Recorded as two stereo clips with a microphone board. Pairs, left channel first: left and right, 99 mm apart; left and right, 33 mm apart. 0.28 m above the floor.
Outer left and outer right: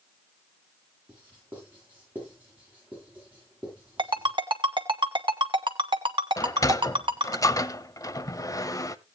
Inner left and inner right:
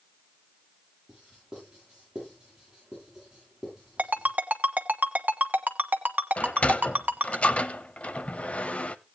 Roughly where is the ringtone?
Right.